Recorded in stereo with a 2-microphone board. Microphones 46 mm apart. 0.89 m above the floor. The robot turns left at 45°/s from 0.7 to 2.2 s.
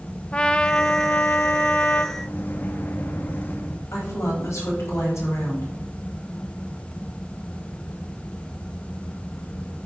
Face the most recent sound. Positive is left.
turn(degrees=80)